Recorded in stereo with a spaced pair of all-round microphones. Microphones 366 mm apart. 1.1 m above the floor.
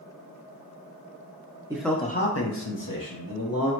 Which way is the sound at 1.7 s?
10° right (ahead or behind).